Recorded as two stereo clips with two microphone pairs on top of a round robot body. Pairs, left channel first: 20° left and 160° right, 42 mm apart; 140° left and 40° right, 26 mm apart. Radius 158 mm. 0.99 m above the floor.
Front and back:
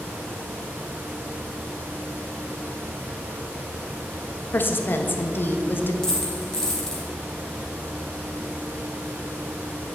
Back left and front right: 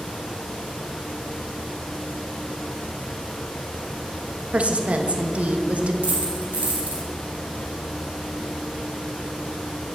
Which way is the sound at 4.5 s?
10° right.